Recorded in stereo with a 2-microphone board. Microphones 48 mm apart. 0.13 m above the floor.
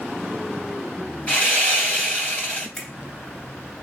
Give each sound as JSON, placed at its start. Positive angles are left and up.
{"t": 1.3, "sound": "sawing", "side_deg": 25, "distance_m": 2.5}
{"t": 2.8, "sound": "a finger snap", "side_deg": 5, "distance_m": 1.4}